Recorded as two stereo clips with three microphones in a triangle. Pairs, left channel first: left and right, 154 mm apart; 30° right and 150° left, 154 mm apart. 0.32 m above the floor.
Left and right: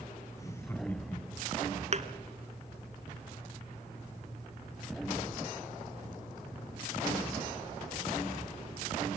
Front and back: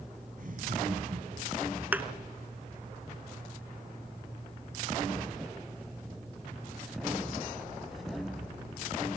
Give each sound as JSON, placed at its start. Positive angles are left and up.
{"t": 0.4, "sound": "laughter", "azimuth_deg": 155, "distance_m": 3.5}
{"t": 1.9, "sound": "a thud", "azimuth_deg": -130, "distance_m": 1.3}